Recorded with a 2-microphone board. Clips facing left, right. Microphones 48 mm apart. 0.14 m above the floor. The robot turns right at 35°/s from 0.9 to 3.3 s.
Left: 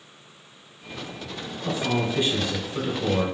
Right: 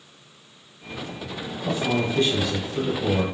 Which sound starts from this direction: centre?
A man speaking, at 1.6 s.